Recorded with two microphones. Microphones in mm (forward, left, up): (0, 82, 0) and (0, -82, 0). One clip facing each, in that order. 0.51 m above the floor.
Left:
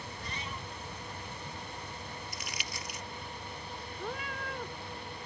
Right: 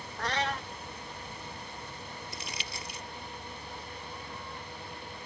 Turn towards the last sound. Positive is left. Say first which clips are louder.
# left 4 dB
turn(degrees=80)